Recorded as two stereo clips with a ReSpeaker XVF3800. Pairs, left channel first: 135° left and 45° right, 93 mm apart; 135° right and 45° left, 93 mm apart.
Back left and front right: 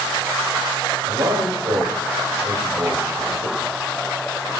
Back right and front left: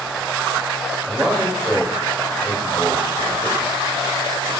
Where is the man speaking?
30° right, 3.5 m.